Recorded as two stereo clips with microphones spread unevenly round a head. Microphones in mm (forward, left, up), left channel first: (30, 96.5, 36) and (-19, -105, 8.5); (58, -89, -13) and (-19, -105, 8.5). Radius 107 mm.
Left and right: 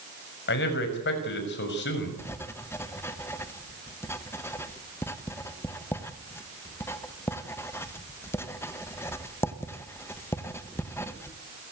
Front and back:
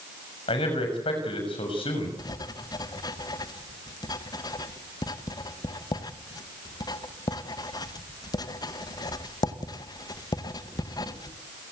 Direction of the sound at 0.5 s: 40° left.